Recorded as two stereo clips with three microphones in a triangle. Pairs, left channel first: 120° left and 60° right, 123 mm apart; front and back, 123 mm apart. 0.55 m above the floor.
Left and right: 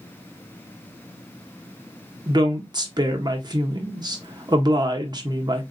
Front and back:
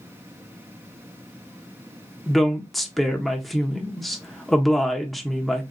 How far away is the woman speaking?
About 0.7 m.